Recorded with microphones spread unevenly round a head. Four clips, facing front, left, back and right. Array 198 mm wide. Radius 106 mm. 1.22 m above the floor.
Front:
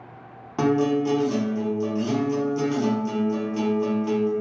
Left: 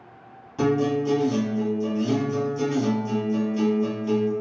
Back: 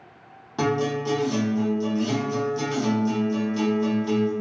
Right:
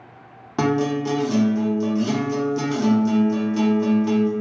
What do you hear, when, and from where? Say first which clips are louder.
0.6 s a guitar: right 1 dB, front 3 dB; 80° right, 0.7 m